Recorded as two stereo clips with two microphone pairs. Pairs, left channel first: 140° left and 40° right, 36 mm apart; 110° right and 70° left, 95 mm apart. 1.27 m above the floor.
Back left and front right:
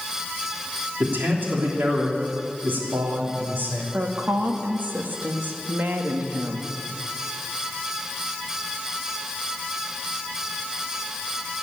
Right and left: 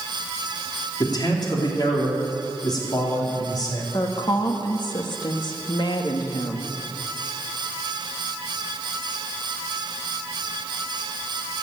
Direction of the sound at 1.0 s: 65° right.